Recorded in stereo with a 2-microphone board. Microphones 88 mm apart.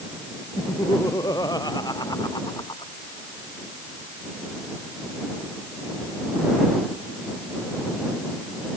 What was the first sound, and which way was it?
Laughter, 45° left (ahead or behind).